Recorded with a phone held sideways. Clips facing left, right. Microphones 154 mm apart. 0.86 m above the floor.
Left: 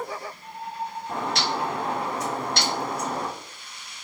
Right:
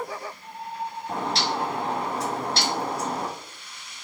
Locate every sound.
1.1 s a bird: 30° right (ahead or behind), 0.8 m